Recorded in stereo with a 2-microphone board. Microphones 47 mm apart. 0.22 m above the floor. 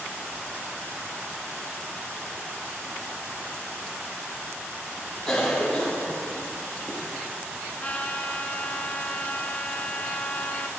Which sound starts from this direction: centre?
A cough, at 5.3 s.